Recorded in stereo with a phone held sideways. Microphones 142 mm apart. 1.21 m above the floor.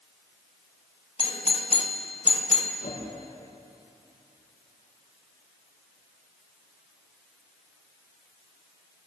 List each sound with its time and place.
1.2 s a doorbell: 45° left (ahead or behind), 2.5 m
2.8 s a whoosh: 80° left, 10 m